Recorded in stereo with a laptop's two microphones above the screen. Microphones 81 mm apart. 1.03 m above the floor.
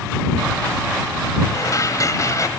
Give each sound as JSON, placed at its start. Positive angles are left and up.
{"t": 1.5, "sound": "dishes clattering", "side_deg": 45}